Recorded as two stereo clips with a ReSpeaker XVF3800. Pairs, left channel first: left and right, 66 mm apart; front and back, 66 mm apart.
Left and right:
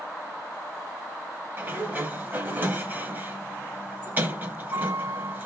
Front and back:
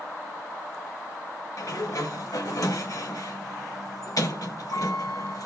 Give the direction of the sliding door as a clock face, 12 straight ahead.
1 o'clock.